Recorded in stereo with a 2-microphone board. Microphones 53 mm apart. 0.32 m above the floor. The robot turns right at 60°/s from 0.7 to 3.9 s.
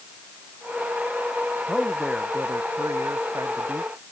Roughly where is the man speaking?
Behind.